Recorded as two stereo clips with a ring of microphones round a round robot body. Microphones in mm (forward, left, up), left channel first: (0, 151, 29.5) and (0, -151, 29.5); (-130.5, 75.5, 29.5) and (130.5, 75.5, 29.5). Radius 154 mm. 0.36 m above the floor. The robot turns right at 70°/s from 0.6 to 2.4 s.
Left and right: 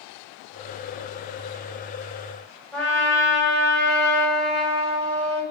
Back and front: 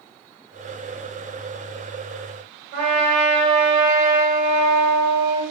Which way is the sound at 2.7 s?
5° left.